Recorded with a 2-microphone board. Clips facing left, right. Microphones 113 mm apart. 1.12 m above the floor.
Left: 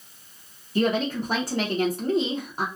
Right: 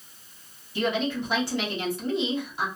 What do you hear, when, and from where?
0.8 s a woman speaking: 45° left (ahead or behind), 0.8 m